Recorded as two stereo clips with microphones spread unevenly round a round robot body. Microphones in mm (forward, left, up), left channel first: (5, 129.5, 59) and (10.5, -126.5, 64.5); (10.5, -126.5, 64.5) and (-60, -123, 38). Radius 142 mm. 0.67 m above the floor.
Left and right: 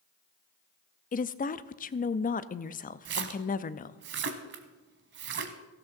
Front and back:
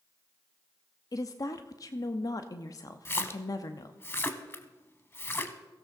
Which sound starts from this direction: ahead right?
A splash, at 3.0 s.